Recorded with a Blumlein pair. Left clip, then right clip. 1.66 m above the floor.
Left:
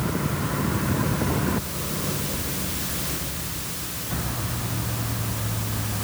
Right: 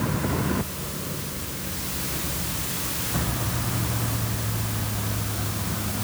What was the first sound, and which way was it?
Only background noise.